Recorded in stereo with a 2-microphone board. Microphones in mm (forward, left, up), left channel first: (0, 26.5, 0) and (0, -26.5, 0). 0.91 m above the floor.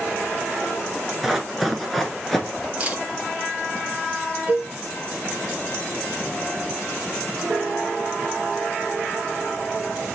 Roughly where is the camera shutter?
Right.